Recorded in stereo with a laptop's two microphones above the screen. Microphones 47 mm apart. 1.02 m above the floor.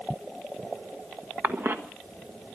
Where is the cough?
50° right (ahead or behind), 1.4 m.